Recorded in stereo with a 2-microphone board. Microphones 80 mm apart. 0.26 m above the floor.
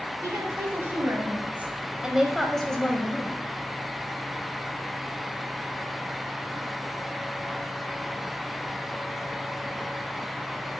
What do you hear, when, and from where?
0.2 s a woman speaking: 35° right (ahead or behind), 2.5 m; by 3.4 s 25° left (ahead or behind), 1.7 m